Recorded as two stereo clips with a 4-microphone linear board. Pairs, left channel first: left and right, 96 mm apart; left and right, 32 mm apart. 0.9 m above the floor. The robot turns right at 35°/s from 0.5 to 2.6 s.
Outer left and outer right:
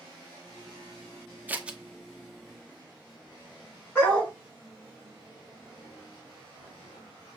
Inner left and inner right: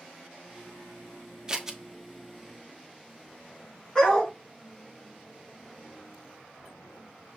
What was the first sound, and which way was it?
Scissors, 20° right (ahead or behind).